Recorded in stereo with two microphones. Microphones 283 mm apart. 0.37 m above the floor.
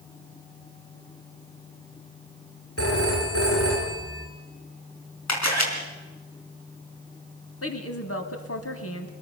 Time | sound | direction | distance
2.8 | a phone ringing | 55° left (ahead or behind) | 4 m
5.3 | a camera shutter | 70° left (ahead or behind) | 4.5 m
7.6 | a woman speaking | 55° left (ahead or behind) | 2.5 m